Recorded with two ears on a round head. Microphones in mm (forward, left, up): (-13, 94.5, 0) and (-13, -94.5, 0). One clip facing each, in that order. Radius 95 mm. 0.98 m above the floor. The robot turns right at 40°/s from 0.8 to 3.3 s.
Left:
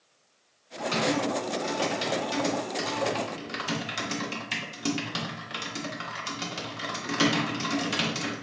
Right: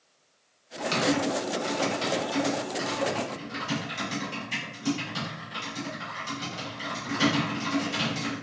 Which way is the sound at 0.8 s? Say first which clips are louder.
Right 1 dB; 30° right (ahead or behind).